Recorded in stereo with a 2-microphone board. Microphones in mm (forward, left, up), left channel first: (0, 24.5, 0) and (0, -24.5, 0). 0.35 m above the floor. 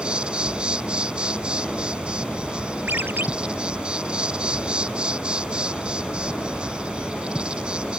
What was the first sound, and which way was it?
An insect, 20° right (ahead or behind).